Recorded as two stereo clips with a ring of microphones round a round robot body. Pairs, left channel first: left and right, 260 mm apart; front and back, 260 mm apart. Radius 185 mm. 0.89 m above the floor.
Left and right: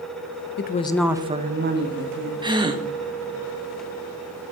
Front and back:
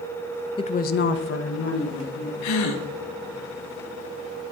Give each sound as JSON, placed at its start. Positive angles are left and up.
{"t": 0.6, "sound": "a woman speaking", "azimuth_deg": 65, "distance_m": 0.5}
{"t": 2.4, "sound": "a gasp", "azimuth_deg": -15, "distance_m": 0.9}